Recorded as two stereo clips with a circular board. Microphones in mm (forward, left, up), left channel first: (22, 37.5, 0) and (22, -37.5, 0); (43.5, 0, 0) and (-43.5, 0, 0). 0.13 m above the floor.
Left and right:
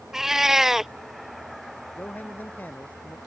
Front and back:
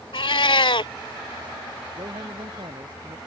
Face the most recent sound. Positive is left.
turn(degrees=155)